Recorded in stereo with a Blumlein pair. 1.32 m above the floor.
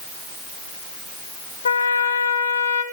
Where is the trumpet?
70° left, 1.1 m.